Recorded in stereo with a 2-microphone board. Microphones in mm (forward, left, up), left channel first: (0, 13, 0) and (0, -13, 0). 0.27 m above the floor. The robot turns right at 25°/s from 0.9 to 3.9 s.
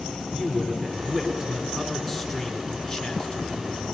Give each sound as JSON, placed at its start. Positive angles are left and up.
{"t": 0.3, "sound": "a man speaking", "azimuth_deg": -40, "distance_m": 3.5}